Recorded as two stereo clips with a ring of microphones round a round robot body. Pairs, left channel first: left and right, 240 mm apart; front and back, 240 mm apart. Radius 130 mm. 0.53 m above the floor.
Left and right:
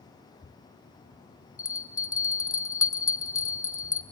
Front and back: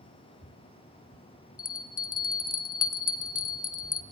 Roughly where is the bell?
Ahead left.